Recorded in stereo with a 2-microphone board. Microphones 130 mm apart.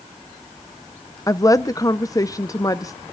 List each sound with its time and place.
1.3 s a woman speaking: 25° left (ahead or behind), 0.5 m